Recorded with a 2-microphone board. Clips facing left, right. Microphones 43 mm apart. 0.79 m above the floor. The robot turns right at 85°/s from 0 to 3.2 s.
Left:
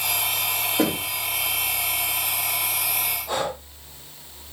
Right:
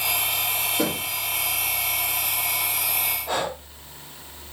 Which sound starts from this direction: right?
Breathing, at 3.3 s.